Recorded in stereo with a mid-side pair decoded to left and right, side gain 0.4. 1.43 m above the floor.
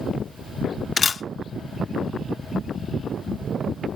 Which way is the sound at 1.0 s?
45° left.